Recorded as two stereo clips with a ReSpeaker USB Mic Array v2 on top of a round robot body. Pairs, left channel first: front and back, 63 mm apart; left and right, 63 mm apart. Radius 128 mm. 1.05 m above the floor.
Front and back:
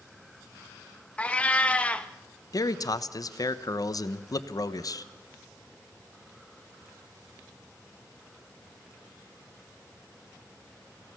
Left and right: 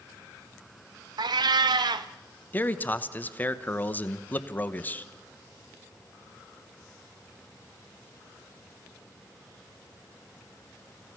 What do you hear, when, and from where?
1.2 s a cat meowing: 70° right, 0.6 m
2.5 s a man speaking: 25° left, 1.1 m